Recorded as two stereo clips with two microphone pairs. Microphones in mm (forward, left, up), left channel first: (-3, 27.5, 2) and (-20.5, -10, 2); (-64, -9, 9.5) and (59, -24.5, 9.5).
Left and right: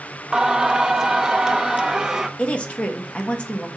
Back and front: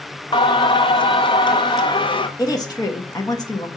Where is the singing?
175° left, 0.6 m.